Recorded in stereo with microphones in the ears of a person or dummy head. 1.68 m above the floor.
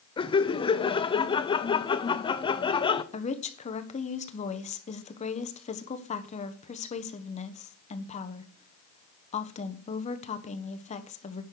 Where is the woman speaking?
35° left (ahead or behind), 1.2 m.